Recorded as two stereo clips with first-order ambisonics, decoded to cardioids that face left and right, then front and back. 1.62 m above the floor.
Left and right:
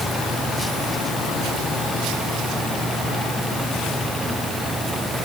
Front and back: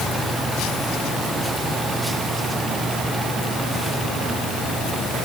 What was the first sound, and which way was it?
Only background noise.